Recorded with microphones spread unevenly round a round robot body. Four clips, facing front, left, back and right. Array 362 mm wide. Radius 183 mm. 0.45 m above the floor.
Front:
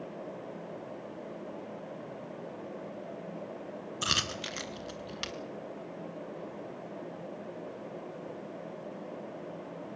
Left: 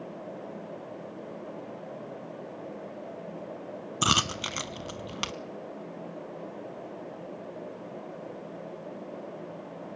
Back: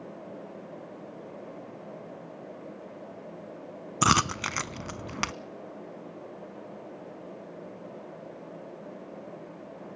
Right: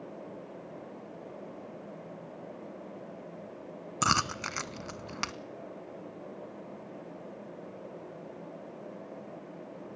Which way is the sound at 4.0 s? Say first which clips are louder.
Left 1 dB, back 13 dB; 165° left.